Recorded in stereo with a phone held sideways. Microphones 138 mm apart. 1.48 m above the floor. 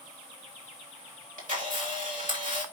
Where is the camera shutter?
75° right (ahead or behind), 3 m.